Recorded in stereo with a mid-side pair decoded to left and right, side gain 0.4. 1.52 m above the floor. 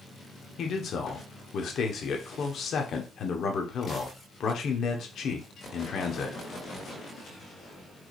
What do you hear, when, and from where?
0.6 s a man speaking: 65° left, 1.2 m